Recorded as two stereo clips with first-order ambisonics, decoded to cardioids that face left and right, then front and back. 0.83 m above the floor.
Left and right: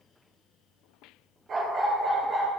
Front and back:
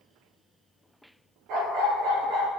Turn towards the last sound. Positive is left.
turn(degrees=-150)